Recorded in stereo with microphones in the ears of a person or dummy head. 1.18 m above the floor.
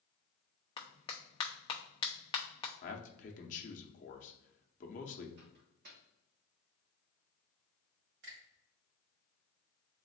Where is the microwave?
55° right (ahead or behind), 1.2 m.